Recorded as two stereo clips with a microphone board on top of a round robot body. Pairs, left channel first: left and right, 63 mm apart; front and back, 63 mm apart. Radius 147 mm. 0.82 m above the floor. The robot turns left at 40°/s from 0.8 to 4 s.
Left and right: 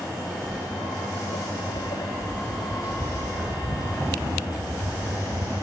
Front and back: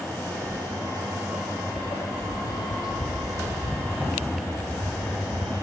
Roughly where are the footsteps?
Behind.